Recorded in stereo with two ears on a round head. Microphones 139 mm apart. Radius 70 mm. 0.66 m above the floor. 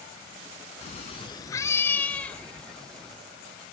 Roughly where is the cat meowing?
Left.